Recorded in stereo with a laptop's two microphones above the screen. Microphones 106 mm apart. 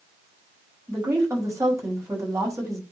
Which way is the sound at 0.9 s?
30° right (ahead or behind).